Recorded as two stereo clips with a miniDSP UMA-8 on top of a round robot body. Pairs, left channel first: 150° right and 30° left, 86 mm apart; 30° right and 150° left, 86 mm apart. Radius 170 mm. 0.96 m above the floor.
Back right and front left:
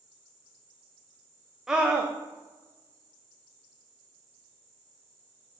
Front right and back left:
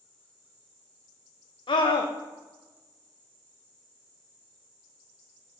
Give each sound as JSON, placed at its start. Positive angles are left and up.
{"t": 1.7, "sound": "a scream", "azimuth_deg": -55, "distance_m": 0.6}